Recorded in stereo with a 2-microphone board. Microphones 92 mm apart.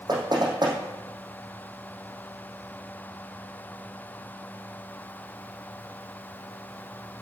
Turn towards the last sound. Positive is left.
turn(degrees=-50)  # may be behind; listen again after turning